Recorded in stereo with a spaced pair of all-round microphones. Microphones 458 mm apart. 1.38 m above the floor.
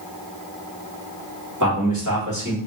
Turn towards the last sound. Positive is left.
turn(degrees=-40)  # may be behind; listen again after turning